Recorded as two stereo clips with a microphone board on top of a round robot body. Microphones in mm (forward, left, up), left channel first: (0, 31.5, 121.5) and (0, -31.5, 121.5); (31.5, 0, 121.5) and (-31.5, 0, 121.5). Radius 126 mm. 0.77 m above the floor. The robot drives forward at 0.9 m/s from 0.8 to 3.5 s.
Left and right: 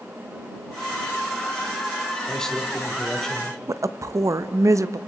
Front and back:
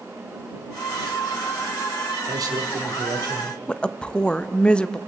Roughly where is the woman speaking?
Right.